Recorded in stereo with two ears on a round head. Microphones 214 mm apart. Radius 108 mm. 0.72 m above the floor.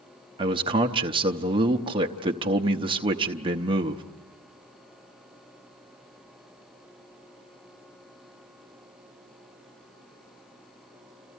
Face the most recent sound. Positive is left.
turn(degrees=-20)  # may be behind; listen again after turning